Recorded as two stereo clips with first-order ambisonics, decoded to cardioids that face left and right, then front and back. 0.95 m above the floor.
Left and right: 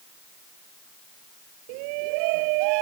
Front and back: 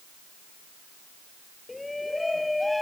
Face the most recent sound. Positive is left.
turn(degrees=-85)